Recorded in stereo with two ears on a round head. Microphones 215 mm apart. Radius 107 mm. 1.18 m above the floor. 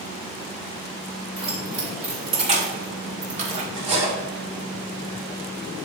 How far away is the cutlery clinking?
About 3 m.